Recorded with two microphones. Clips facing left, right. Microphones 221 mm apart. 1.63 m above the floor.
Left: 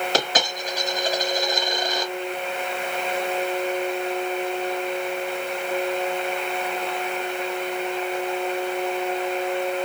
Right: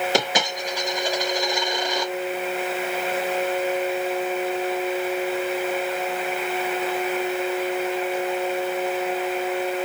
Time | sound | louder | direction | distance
0.1 | a dropped coin | right 1 dB | 15° right (ahead or behind) | 3 m